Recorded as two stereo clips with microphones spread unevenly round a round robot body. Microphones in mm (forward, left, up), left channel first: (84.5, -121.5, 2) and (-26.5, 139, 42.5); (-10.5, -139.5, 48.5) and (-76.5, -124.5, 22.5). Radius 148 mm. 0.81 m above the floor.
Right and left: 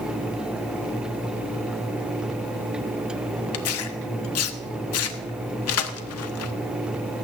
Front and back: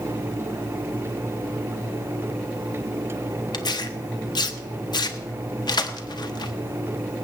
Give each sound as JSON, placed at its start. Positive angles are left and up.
{"t": 3.5, "sound": "tearing paper", "azimuth_deg": -35, "distance_m": 1.0}